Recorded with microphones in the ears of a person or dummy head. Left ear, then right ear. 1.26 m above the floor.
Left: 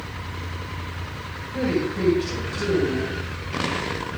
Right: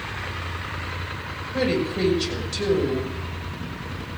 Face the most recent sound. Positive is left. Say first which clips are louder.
# right 1 dB
turn(degrees=-50)  # may be behind; listen again after turning